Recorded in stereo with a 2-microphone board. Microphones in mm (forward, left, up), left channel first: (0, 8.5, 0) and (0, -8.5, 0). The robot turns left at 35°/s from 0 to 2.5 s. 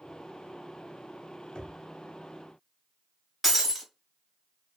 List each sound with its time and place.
1.6 s knocking: 55° left (ahead or behind), 0.8 m
3.4 s breaking glass: 15° right (ahead or behind), 1.2 m